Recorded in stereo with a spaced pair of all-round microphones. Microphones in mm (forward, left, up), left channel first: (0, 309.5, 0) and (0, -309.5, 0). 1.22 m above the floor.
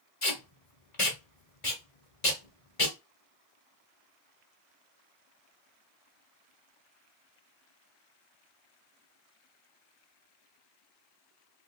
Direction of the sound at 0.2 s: 55° left (ahead or behind).